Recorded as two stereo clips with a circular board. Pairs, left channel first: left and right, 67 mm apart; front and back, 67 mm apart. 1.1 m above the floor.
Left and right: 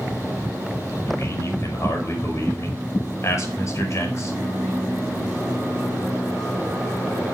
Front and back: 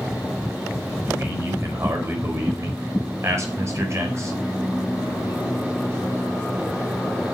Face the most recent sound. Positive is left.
turn(degrees=135)